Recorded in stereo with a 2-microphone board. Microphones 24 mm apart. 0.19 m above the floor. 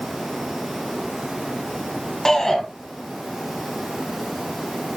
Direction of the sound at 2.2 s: 15° left (ahead or behind).